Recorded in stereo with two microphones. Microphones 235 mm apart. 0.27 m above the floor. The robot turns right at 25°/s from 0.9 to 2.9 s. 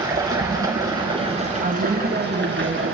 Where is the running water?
165° right, 3 m; by 2.9 s 115° right, 3 m.